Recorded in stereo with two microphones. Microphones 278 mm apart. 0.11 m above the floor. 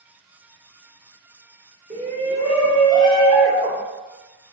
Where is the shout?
25° right (ahead or behind), 1.7 m; by 3.8 s 40° left (ahead or behind), 1.9 m.